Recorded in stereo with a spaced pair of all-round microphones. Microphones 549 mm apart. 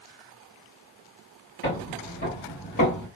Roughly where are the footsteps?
Left.